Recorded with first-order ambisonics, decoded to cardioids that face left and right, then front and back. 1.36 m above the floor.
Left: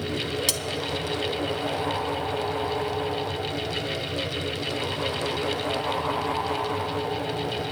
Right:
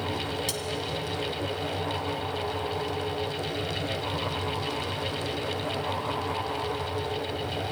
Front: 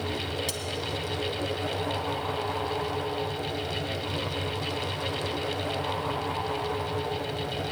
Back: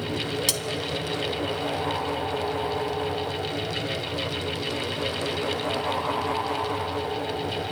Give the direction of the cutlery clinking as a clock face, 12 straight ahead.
7 o'clock.